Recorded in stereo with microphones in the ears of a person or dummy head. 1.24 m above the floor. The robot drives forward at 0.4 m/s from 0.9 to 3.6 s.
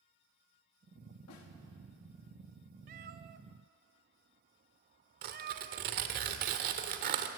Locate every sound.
1.3 s a snare drum: 75° left (ahead or behind), 2.5 m; by 1.5 s 80° left, 2.5 m
2.9 s a cat meowing: 45° right (ahead or behind), 0.7 m
5.2 s tearing paper: 50° right (ahead or behind), 1.4 m